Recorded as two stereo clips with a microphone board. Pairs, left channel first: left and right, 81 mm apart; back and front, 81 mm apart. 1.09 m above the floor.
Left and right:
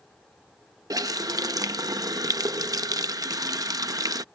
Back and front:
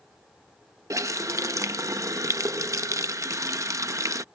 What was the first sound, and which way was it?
A running tap, 50° right.